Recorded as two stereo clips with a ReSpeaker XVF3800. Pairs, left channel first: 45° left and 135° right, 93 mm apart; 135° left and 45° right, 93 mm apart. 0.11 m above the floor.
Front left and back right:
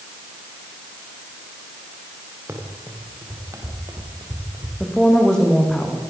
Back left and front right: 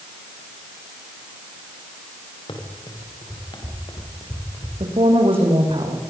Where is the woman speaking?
35° right, 7 m.